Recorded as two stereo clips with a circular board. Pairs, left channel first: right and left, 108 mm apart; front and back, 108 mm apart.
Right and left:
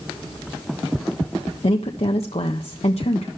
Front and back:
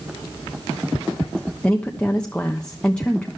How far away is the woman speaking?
About 1.2 m.